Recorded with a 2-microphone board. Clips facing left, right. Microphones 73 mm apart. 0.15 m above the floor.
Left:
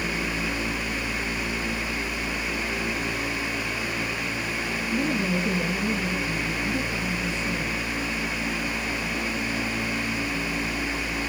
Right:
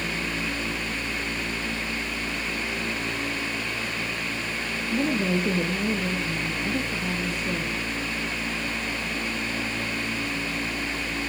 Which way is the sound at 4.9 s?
50° right (ahead or behind).